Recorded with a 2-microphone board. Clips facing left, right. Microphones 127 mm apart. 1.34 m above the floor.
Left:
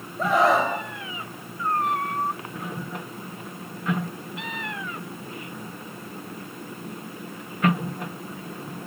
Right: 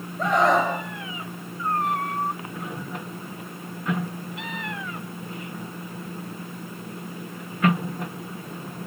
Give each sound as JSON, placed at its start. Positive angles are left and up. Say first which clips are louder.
{"t": 0.2, "sound": "a scream", "louder": "even", "side_deg": 5, "distance_m": 6.0}